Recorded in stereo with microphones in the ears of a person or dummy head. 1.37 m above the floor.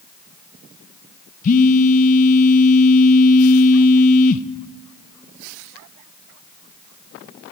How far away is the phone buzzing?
About 0.8 m.